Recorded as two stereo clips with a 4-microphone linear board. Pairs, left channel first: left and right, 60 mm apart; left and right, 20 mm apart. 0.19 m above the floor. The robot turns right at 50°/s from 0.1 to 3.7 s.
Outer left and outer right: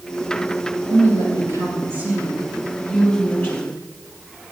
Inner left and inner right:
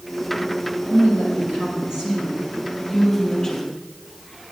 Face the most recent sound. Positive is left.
turn(degrees=50)